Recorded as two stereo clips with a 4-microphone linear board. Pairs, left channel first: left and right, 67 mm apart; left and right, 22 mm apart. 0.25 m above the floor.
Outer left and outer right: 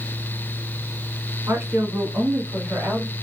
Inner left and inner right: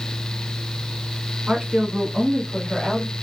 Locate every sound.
1.5 s a woman speaking: 45° right (ahead or behind), 1.3 m; by 3.1 s 15° right (ahead or behind), 1.8 m